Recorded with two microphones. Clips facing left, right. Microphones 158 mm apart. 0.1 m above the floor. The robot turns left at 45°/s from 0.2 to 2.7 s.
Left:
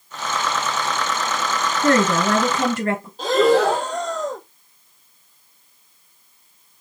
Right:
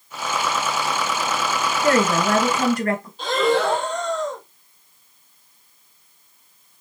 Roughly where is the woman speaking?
Left.